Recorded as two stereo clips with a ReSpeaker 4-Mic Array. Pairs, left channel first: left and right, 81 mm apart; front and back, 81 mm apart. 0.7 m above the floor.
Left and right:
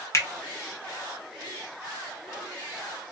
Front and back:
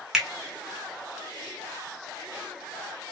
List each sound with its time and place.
0.1 s a finger snap: 100° left, 0.6 m